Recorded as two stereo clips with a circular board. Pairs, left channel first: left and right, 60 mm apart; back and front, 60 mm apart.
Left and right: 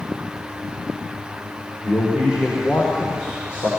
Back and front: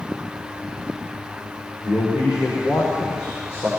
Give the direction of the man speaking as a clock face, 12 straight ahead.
7 o'clock.